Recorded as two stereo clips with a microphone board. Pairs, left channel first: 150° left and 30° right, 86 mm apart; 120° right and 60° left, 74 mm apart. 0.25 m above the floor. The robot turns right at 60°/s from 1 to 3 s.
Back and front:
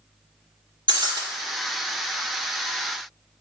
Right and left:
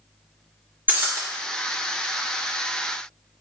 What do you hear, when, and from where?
0.9 s breaking glass: 5° right, 2.5 m; by 1.2 s 10° left, 2.5 m